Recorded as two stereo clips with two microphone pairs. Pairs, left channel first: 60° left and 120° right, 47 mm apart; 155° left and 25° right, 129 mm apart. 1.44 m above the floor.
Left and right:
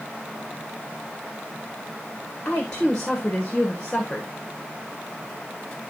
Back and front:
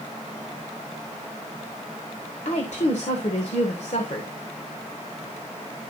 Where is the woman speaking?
130° left, 1.7 m.